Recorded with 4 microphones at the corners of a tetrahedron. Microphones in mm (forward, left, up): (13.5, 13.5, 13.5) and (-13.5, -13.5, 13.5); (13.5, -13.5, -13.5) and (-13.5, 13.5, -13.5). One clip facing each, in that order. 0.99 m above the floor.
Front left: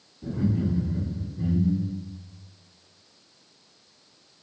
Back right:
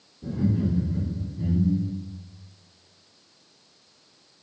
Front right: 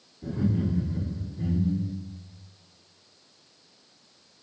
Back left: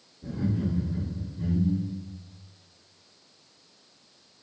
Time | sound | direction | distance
0.2 | laughter | 10° right | 1.6 m